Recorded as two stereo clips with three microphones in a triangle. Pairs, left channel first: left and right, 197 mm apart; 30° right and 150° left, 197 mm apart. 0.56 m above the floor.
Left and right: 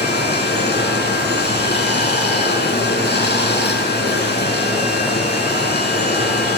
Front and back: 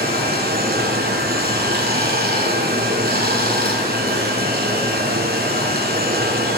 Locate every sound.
0.0 s running water: 115° left, 3.5 m